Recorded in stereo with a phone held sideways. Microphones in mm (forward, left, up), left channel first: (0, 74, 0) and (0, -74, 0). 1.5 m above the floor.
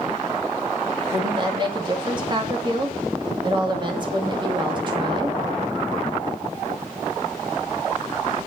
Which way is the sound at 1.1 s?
30° right (ahead or behind).